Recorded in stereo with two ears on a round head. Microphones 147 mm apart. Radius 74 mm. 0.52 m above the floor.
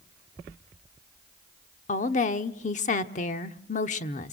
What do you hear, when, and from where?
1.9 s a woman speaking: 45° left (ahead or behind), 1.1 m